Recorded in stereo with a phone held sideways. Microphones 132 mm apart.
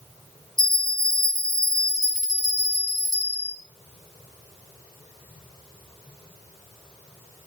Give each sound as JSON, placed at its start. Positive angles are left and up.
{"t": 0.6, "sound": "a bell", "side_deg": -70, "distance_m": 1.0}